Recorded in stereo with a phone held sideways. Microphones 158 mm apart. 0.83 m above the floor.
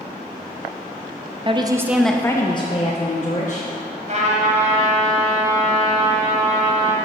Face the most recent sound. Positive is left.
turn(degrees=-45)  # may be behind; listen again after turning